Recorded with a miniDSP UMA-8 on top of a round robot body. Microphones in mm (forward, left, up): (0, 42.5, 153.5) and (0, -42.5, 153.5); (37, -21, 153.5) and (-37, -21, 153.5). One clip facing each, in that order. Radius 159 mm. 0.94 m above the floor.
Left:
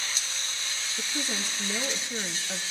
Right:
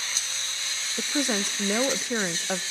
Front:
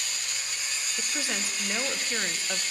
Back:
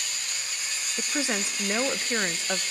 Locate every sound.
1.0 s a woman speaking: 110° right, 0.8 m